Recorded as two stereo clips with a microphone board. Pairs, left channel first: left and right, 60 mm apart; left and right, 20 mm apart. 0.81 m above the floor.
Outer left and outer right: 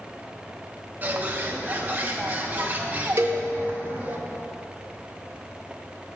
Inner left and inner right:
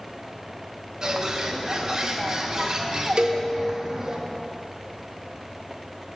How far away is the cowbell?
About 0.7 m.